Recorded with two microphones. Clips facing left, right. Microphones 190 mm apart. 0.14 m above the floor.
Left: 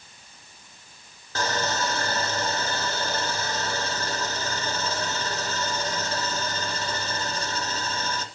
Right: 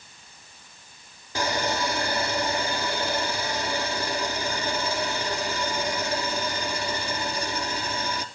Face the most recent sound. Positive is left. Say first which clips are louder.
# right 1 dB
turn(degrees=-15)  # may be behind; listen again after turning